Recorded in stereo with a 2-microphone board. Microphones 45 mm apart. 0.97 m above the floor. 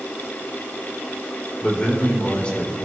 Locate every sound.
1.6 s a man speaking: 25° left (ahead or behind), 3.5 m